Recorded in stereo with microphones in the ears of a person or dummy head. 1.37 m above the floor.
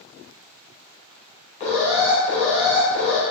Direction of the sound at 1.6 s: 40° left (ahead or behind).